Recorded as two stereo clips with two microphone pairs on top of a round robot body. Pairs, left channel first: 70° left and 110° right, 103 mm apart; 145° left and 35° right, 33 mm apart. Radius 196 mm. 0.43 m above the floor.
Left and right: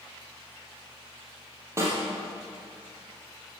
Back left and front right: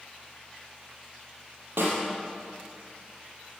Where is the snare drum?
40° right, 3 m.